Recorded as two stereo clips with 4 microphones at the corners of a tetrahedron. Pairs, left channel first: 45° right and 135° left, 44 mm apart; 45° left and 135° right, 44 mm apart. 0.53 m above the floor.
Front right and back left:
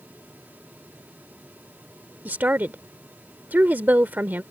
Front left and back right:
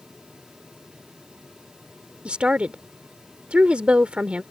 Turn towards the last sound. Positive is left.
turn(degrees=170)